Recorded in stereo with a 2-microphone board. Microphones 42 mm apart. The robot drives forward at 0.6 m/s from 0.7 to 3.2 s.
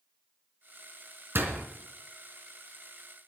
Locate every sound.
1.4 s a door slam: 60° right (ahead or behind), 3 m; by 1.6 s 65° right (ahead or behind), 3 m